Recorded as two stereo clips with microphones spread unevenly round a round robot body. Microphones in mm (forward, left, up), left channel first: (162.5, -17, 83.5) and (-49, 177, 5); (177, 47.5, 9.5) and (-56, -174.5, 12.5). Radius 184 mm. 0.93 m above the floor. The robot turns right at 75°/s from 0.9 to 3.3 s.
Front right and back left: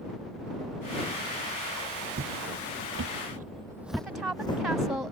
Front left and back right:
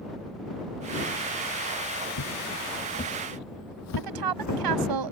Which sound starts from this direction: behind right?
A woman speaking, at 4.0 s.